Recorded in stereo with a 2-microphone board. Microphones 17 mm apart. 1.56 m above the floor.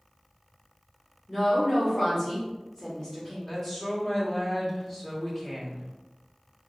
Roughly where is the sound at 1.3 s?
Left.